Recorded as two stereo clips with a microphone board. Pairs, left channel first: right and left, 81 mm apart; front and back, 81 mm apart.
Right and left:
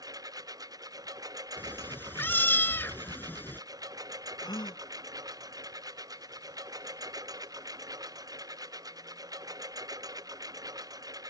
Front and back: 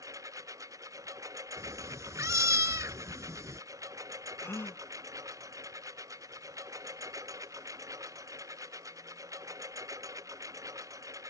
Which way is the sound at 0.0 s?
130° left.